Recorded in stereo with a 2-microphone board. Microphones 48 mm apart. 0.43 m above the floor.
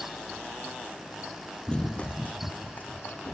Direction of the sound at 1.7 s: 15° left (ahead or behind).